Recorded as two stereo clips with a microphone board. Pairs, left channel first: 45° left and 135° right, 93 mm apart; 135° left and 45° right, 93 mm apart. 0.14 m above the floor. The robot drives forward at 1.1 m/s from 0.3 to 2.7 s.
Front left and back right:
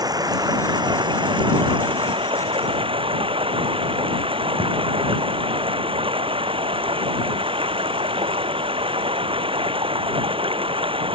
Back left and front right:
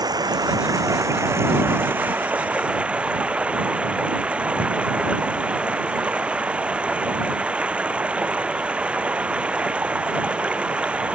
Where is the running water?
90° right; by 11.2 s 120° right.